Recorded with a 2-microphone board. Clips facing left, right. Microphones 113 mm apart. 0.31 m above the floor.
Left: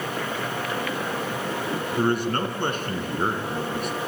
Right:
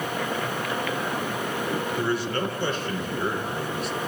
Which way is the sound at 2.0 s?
55° left (ahead or behind).